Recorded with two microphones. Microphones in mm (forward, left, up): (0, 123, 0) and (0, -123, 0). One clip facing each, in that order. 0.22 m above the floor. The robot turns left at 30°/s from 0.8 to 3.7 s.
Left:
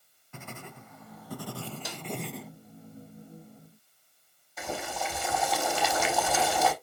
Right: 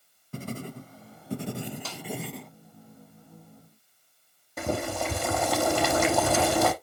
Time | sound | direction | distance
0.3 | writing | 135° right | 0.7 m
1.9 | a snare drum | 15° left (ahead or behind) | 2 m
4.6 | boiling | 60° right (ahead or behind) | 3.5 m